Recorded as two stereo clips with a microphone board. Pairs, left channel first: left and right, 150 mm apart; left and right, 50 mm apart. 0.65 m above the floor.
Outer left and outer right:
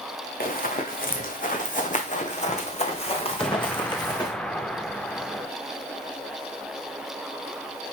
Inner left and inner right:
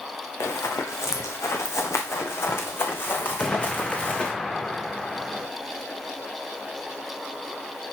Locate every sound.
0.4 s running footsteps: 75° left (ahead or behind), 2.5 m; by 4.3 s 25° left (ahead or behind), 2 m
3.4 s an explosion: 5° left (ahead or behind), 0.7 m